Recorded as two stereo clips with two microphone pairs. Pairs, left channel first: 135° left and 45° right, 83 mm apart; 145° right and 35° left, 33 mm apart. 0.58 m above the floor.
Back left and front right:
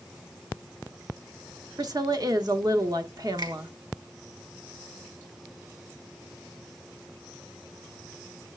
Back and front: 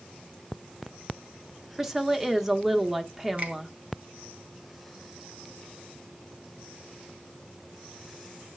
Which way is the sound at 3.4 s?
10° right.